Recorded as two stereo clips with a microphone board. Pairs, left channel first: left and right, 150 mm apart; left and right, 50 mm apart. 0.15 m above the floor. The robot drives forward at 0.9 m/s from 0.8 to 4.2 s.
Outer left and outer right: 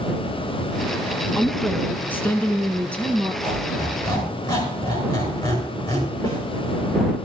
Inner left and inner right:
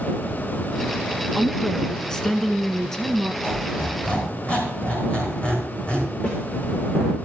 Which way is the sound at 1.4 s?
15° left (ahead or behind).